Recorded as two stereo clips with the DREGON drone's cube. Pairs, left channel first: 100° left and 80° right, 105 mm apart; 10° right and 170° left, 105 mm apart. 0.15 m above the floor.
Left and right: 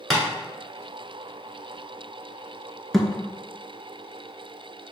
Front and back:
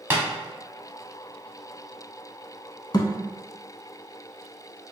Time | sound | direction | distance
0.1 | tapping | 175° right | 1.1 m
2.9 | a thud | 15° left | 0.5 m